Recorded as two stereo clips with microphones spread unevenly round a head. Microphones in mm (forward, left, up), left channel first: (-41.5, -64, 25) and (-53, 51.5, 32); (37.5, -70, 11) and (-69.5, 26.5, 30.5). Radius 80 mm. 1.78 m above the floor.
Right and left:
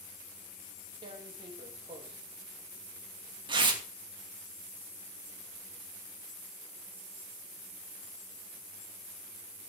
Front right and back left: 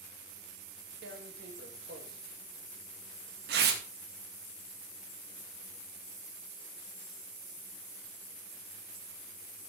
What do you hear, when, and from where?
1.0 s tearing paper: 145° left, 2.5 m